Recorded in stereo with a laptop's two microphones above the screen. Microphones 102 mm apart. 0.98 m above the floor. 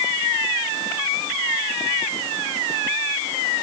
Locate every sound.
Only background noise.